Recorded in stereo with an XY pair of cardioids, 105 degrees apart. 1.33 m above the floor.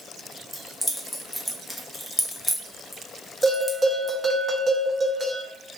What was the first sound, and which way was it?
Keys jangling, 5° left.